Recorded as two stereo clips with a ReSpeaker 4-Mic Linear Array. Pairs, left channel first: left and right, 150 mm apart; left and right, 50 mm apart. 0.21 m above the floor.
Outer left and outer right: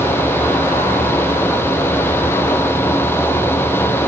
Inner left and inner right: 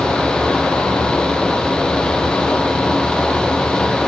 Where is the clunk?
I don't hear a clunk.